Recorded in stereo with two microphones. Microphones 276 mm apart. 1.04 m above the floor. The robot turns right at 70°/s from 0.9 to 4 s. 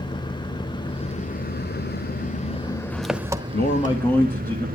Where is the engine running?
30° left, 0.8 m; by 4.8 s 115° right, 0.8 m.